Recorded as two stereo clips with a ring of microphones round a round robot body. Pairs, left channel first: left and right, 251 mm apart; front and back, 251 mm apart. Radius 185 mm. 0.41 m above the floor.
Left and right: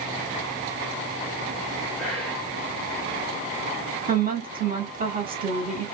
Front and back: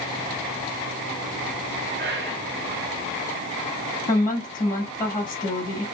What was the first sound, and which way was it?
Whispering, straight behind.